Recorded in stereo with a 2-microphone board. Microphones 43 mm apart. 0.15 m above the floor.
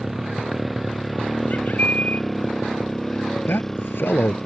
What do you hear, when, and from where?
0.0 s a motorcycle: 5° right (ahead or behind); by 4.5 s 10° left (ahead or behind)
1.5 s a bird: 40° left (ahead or behind)
3.5 s a man speaking: 60° left (ahead or behind)